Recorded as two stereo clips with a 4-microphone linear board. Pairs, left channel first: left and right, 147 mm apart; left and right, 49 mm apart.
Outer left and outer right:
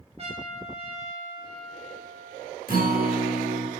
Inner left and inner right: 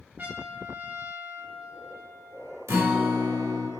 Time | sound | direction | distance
0.2 | a trumpet | 45° right (ahead or behind) | 1.2 m
2.7 | a guitar | 80° right | 1.1 m